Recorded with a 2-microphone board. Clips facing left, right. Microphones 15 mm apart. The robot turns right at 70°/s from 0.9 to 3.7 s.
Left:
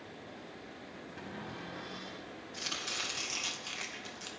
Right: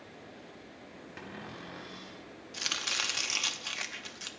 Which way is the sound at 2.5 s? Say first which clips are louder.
Right 5 dB; 120° right.